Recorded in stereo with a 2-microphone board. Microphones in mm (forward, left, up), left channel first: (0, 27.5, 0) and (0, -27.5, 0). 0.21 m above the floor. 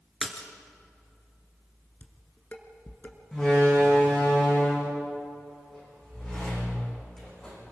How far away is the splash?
About 2 m.